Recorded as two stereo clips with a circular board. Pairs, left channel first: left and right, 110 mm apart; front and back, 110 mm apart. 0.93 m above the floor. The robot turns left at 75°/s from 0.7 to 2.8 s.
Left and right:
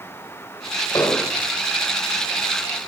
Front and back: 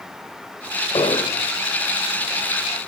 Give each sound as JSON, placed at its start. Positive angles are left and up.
{"t": 0.9, "sound": "an explosion", "azimuth_deg": 35, "distance_m": 1.5}